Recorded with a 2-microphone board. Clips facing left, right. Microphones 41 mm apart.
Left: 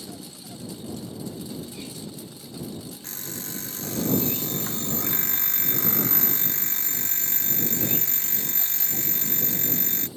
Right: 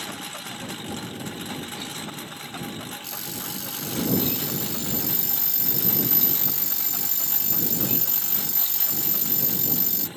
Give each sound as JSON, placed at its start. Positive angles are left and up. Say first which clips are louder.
{"t": 0.0, "sound": "a lawn mower", "louder": "right 6 dB", "side_deg": -60}
{"t": 3.0, "sound": "an alarm clock", "louder": "right 3 dB", "side_deg": 40}